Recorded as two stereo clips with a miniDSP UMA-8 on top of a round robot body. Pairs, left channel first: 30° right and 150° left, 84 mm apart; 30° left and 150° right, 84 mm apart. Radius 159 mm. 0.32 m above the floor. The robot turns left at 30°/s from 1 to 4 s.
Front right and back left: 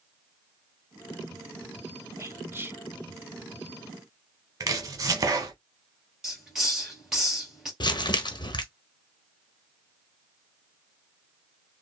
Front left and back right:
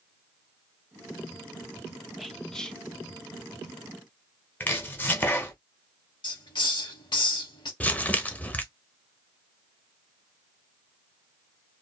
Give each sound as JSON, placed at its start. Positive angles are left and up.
{"t": 2.2, "sound": "whispering", "azimuth_deg": 120, "distance_m": 1.0}
{"t": 4.6, "sound": "chopping", "azimuth_deg": 100, "distance_m": 0.8}
{"t": 6.2, "sound": "a hiss", "azimuth_deg": 65, "distance_m": 2.0}
{"t": 7.8, "sound": "crumpling", "azimuth_deg": -40, "distance_m": 1.0}